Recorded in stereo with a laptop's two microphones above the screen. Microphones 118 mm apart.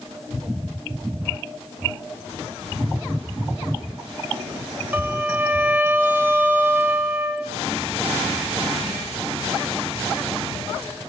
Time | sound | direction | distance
4.9 | a violin | 15° right (ahead or behind) | 1.8 m